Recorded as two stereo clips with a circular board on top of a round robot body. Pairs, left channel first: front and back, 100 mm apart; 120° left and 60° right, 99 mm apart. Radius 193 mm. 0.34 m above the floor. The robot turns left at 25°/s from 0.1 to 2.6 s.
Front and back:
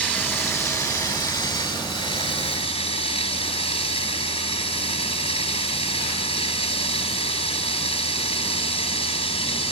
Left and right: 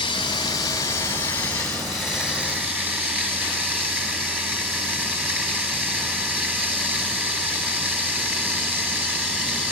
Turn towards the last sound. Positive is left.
turn(degrees=15)